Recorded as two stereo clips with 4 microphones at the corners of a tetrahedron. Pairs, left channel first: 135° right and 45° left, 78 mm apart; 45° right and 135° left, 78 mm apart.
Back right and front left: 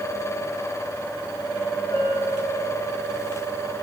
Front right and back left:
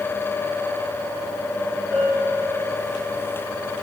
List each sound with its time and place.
1.9 s a bell: 140° right, 8 m